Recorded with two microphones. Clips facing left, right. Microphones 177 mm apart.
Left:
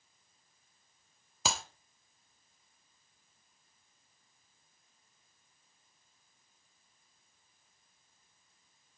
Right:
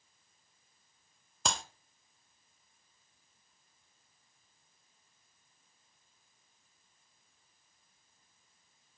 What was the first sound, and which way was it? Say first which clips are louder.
A clap: even; 5° left (ahead or behind).